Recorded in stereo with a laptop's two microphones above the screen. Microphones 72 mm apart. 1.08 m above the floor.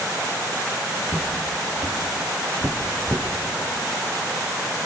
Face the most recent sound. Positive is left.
turn(degrees=-40)  # may be behind; listen again after turning